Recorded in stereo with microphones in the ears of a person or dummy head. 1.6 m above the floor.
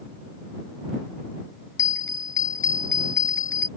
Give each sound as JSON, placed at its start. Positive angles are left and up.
{"t": 1.8, "sound": "a bell", "side_deg": 15}